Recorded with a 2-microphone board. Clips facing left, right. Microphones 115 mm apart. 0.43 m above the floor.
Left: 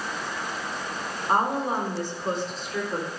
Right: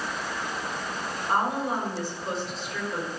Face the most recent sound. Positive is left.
turn(degrees=45)  # may be behind; listen again after turning